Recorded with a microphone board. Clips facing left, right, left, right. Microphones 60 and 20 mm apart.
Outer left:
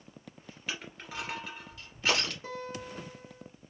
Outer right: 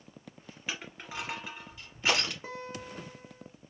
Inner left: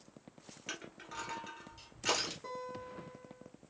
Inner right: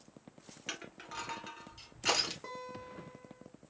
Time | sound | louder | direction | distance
0.7 | crushing | even, inner right 2 dB | 15° right (ahead or behind) | 1.8 m
2.4 | a guitar | outer left 1 dB, inner left 1 dB | 25° right (ahead or behind) | 0.9 m